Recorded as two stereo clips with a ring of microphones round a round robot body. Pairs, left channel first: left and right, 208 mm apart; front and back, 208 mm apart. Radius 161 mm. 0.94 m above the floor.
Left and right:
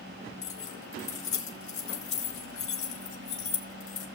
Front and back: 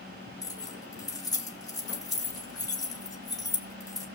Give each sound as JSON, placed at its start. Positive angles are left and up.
{"t": 0.4, "sound": "keys jangling", "azimuth_deg": 75, "distance_m": 3.0}